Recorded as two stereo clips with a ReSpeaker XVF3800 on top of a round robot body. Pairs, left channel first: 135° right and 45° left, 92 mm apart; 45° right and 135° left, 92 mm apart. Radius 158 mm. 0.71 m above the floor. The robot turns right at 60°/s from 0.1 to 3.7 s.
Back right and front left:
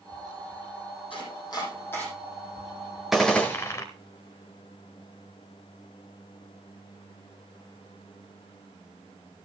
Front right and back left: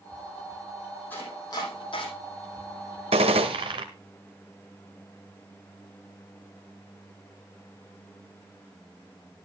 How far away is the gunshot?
About 0.5 m.